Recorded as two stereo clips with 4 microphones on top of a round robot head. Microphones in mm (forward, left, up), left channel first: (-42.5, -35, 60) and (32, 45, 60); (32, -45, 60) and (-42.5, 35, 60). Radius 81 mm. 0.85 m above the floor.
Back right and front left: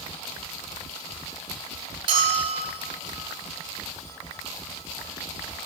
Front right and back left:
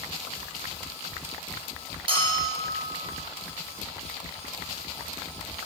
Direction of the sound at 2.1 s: 90° left.